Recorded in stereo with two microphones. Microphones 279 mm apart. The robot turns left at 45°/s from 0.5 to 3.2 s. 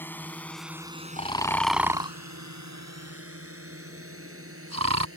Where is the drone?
5° left (ahead or behind); by 5.2 s 50° right (ahead or behind).